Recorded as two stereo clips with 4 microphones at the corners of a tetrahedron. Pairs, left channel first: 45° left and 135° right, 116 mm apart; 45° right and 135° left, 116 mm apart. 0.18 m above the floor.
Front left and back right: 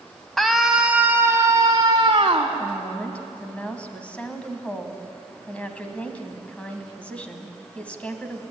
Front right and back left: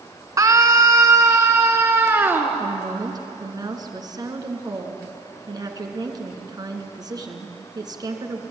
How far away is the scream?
About 1.7 m.